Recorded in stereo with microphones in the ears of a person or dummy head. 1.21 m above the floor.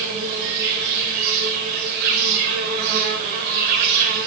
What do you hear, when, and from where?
0.0 s an insect: 50° right (ahead or behind), 1.3 m